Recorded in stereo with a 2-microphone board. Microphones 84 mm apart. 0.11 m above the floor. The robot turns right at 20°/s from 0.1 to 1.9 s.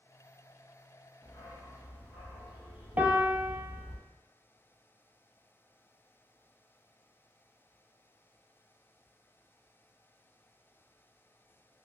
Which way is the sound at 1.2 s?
60° left (ahead or behind).